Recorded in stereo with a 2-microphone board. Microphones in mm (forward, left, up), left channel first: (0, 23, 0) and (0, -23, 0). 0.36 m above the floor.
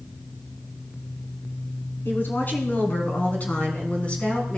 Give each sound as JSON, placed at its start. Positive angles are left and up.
{"t": 2.0, "sound": "a woman speaking", "side_deg": 45, "distance_m": 3.0}